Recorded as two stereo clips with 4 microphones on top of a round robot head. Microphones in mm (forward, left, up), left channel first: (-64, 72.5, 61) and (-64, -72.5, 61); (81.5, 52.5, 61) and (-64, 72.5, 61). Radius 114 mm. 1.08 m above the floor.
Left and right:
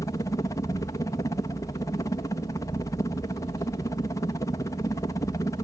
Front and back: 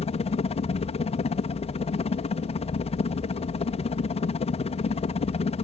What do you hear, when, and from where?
0.0 s a helicopter: 25° left